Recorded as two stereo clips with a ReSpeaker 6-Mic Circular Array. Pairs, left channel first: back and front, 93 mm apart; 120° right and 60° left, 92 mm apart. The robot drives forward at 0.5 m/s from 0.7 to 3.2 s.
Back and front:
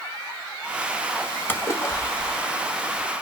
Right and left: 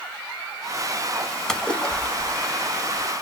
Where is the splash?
165° left, 0.6 m; by 3.1 s 175° left, 1.2 m.